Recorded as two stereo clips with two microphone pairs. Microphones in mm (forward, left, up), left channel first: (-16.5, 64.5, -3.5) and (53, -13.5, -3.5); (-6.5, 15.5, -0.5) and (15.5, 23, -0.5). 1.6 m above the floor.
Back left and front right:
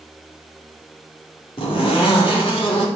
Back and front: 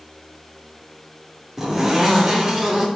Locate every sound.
1.6 s a zipper: 95° left, 5.5 m